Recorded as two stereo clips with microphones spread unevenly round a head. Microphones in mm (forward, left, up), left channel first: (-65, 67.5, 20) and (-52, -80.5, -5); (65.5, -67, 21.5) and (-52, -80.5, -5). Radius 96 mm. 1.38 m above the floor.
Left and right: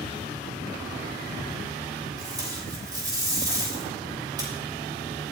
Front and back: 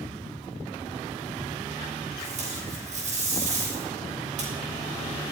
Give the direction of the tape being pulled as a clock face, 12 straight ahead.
5 o'clock.